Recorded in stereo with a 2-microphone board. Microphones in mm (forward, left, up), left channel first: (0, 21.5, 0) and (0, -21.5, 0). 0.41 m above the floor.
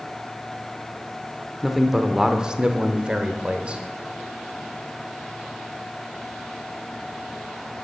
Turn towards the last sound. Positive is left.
turn(degrees=-25)  # may be behind; listen again after turning